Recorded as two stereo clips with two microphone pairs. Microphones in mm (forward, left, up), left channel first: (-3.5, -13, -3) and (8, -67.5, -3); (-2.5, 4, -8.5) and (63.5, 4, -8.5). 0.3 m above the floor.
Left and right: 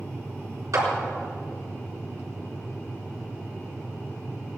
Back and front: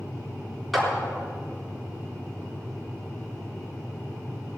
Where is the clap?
90° right, 4 m.